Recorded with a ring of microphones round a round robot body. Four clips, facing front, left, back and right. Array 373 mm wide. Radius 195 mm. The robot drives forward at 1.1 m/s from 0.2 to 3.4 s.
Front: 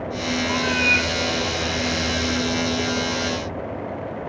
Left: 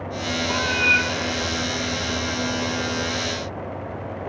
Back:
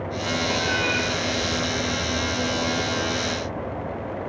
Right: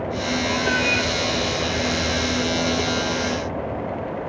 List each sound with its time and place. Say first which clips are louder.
0.5 s a cat meowing: left 1 dB, front 3 dB; 20° left, 2 m; by 1.1 s 25° left, 1.4 m